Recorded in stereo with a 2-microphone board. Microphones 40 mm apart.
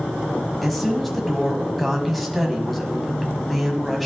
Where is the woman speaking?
Centre (ahead or behind), 1.2 m.